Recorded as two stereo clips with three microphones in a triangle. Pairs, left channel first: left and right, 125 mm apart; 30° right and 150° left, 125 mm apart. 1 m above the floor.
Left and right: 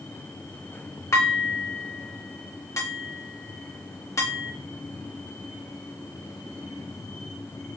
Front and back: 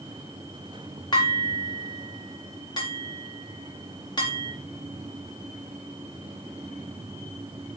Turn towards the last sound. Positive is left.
turn(degrees=25)